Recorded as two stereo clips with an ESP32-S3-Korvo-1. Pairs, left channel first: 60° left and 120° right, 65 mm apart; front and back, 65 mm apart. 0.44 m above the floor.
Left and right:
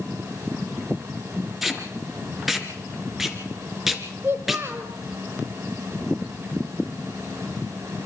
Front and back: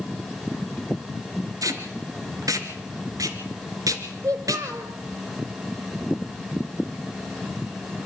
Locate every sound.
1.6 s tape being pulled: 155° left, 1.9 m
4.2 s a child speaking: 170° right, 1.7 m